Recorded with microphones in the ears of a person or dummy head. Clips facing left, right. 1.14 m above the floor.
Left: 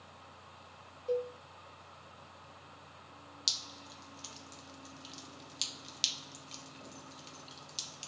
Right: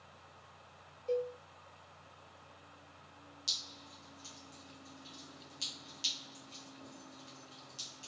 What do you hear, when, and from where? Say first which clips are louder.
1.1 s a cowbell: left 1 dB; 10° left (ahead or behind), 0.5 m
3.5 s dripping: left 3 dB; 80° left, 0.7 m